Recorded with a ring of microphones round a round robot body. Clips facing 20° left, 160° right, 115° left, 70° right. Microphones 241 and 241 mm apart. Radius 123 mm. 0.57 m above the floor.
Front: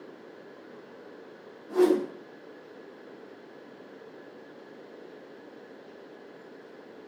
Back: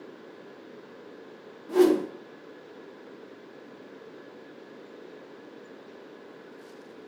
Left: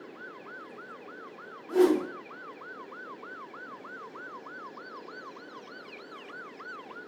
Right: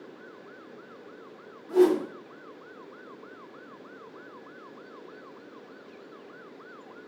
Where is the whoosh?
155° right, 0.6 m.